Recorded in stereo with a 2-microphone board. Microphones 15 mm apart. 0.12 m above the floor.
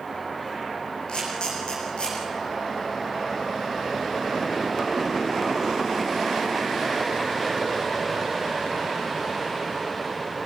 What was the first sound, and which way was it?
A camera shutter, 80° left.